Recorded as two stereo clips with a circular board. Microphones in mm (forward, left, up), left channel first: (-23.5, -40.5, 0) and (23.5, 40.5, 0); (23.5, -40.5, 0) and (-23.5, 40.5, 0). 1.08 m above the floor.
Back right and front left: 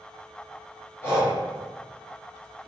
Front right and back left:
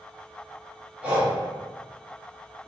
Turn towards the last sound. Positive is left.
turn(degrees=-175)